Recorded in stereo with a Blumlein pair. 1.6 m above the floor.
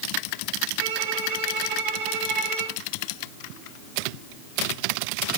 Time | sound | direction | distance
0.8 | a violin | 45° right | 5 m